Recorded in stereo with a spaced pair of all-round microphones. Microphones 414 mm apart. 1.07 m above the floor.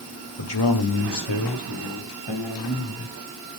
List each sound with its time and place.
0.4 s a man speaking: 70° left (ahead or behind), 2 m; by 3.1 s 80° left, 5 m